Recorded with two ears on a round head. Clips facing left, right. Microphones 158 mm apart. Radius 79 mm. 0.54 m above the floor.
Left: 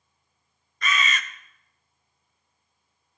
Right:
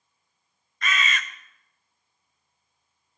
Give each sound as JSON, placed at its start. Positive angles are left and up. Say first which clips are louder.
{"t": 0.8, "sound": "a bird", "louder": "left 1 dB", "side_deg": 85, "distance_m": 0.7}